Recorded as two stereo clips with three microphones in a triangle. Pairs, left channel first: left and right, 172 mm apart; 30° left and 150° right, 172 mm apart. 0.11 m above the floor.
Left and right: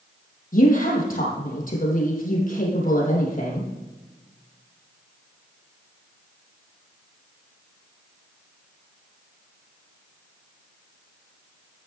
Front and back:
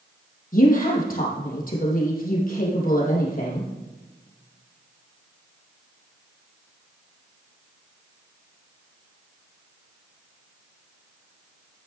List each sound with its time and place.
0.5 s a woman speaking: 60° left, 3.5 m